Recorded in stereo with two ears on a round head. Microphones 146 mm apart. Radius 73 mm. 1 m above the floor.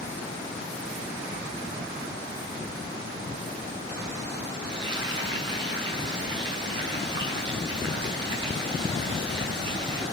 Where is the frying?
30° right (ahead or behind), 9 m.